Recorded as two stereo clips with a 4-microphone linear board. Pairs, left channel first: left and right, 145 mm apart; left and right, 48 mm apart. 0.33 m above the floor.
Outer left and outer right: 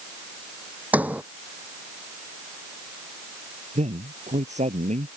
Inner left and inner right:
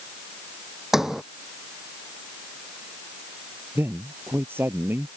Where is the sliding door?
10° right (ahead or behind).